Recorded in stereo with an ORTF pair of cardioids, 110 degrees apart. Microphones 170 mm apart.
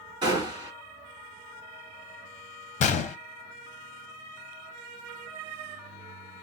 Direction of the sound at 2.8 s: 45° left.